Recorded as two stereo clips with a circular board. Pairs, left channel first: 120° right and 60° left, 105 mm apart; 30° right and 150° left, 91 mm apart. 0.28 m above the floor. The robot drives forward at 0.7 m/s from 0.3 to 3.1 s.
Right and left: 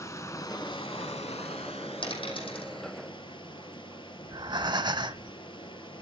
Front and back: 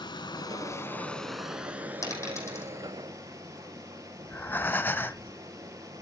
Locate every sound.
0.0 s running water: 60° right, 0.8 m; by 6.0 s 160° right, 1.7 m
2.0 s a dropped coin: 85° right, 5.5 m; by 2.7 s 90° right, 5.5 m
4.2 s breathing: 35° left, 0.5 m